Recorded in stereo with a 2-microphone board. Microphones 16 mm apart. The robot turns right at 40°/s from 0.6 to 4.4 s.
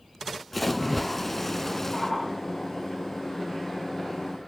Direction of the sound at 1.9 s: 40° left (ahead or behind).